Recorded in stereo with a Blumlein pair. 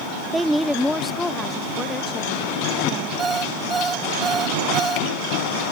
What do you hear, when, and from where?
0.3 s a woman speaking: 10° right; by 3.1 s 20° left
3.2 s an alarm clock: 10° right